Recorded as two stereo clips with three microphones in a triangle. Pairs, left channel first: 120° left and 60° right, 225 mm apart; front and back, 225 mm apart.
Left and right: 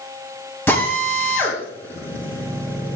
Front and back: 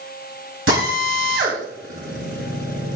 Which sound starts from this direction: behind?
A drill, at 0.7 s.